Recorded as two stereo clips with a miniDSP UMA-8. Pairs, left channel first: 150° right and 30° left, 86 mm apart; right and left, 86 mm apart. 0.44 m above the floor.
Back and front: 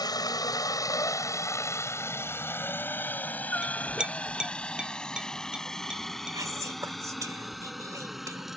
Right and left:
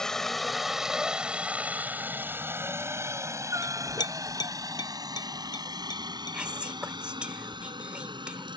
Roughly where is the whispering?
Ahead.